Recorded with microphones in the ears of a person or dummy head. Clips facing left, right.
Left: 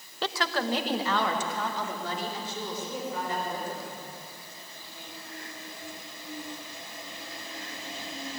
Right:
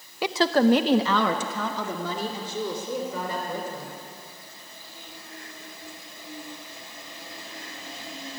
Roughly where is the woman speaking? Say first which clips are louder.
Right 10 dB; centre.